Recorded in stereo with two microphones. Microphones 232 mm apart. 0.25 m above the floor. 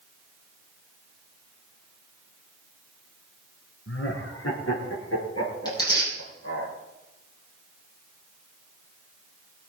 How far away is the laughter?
About 3 m.